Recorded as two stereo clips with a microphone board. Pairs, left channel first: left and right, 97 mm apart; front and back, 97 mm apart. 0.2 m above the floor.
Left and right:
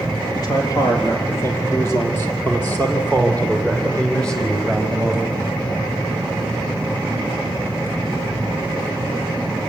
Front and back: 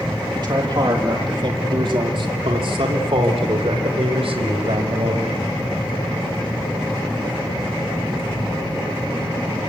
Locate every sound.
0.3 s a man speaking: 140° left, 5.5 m; by 5.3 s straight behind, 7.5 m